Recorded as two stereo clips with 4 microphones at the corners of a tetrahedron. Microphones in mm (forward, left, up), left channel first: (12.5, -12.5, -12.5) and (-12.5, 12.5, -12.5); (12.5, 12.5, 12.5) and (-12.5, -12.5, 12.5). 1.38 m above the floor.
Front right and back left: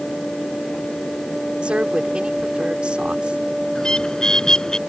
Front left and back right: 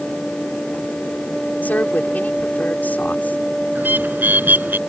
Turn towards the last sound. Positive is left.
turn(degrees=-110)